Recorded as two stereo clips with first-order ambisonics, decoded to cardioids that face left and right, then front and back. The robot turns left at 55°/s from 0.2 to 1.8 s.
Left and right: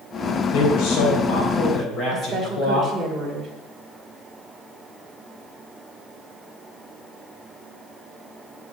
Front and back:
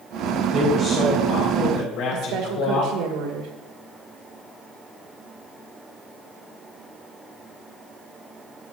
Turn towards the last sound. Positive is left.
turn(degrees=-170)